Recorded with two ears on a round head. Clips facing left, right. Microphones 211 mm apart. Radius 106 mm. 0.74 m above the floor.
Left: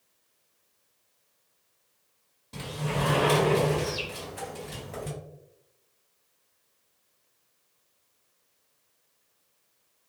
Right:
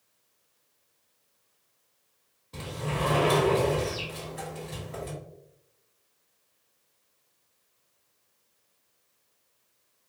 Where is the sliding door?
55° left (ahead or behind), 1.7 m.